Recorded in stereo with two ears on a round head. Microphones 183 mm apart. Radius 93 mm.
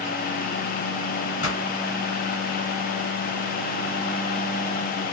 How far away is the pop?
About 2.5 m.